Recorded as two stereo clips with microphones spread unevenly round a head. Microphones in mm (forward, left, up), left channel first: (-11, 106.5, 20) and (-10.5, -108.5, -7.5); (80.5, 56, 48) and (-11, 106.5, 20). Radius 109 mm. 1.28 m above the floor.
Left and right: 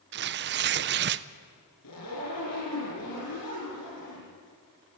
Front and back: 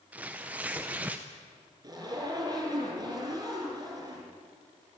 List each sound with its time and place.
0.1 s tearing paper: 130° right, 0.5 m
1.8 s a zipper: 95° left, 8.5 m